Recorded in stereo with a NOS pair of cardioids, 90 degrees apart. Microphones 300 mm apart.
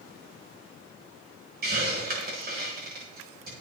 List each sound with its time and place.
1.6 s a hiss: 30° right, 9 m